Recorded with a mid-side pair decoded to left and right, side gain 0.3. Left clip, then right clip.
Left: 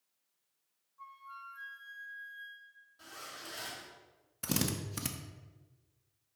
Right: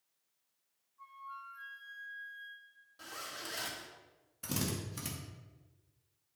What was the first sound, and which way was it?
A flute, 55° left.